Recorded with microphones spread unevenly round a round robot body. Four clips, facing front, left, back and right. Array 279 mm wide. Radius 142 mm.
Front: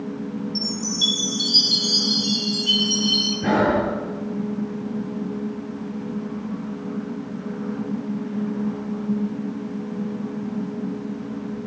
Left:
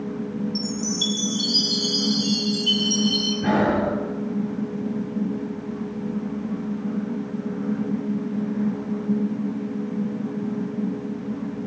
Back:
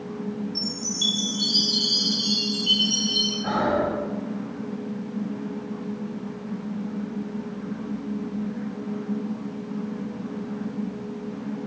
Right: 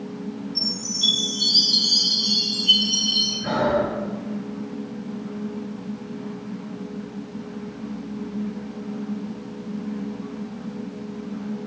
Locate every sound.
0.6 s a chime: 85° left, 6.5 m
3.4 s breathing: 30° left, 5.5 m